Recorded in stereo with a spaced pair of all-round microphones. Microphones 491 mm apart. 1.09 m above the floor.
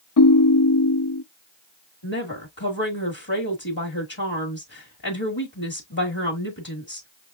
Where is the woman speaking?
45° left (ahead or behind), 1.7 m.